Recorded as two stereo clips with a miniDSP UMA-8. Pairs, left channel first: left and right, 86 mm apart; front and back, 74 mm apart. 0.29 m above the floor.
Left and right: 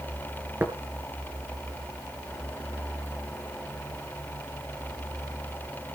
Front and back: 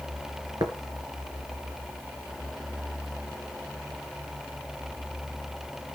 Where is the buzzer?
No buzzer in this recording.